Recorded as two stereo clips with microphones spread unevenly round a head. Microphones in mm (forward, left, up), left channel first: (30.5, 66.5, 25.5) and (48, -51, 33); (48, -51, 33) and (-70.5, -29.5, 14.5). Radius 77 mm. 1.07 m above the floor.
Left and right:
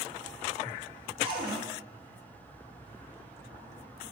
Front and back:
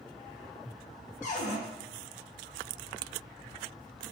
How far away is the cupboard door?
About 0.7 m.